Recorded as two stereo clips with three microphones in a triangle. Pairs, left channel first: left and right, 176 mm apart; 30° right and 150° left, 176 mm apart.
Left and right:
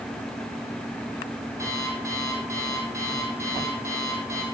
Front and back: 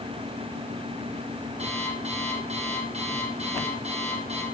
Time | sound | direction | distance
1.6 | an alarm clock | 160° right | 3 m